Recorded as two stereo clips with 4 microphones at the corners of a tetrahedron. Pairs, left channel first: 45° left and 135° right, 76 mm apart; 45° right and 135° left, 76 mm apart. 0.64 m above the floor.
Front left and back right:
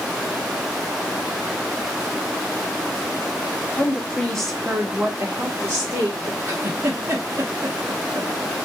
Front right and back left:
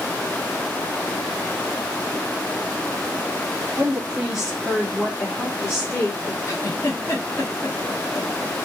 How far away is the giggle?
About 0.9 m.